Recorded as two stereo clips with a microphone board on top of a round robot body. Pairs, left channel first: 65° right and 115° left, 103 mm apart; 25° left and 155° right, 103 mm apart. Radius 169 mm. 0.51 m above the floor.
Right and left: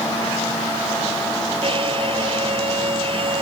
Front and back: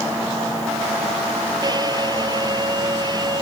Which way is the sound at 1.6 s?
150° left.